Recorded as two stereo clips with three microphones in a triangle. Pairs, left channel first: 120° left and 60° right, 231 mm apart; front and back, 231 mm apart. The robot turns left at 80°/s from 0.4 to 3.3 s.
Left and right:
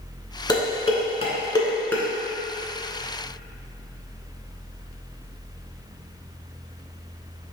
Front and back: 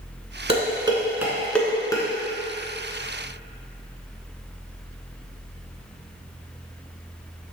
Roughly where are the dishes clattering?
Behind.